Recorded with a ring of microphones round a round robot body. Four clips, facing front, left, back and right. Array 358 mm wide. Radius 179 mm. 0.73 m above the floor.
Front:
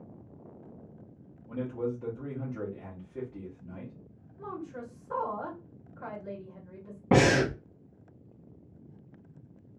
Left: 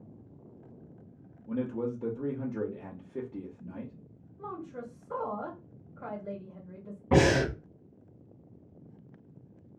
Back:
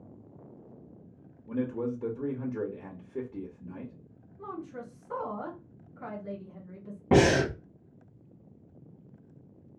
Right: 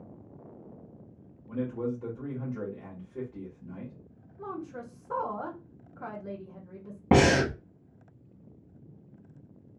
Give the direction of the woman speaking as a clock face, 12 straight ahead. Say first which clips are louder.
Right 2 dB, even; 4 o'clock.